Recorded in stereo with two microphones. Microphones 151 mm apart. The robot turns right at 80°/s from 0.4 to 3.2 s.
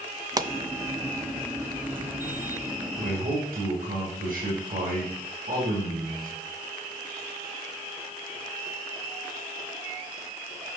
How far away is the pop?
About 0.5 m.